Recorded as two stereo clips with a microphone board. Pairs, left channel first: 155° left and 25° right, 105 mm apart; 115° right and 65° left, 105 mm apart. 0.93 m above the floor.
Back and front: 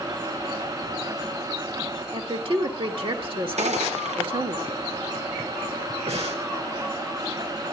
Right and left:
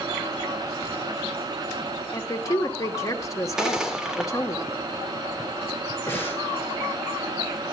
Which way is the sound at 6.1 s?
45° right.